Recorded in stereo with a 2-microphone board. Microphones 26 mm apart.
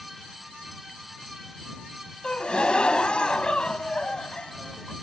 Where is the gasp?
45° left (ahead or behind).